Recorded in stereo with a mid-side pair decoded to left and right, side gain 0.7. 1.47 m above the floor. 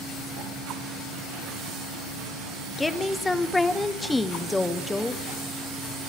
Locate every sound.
2.8 s a woman speaking: 10° left, 1.0 m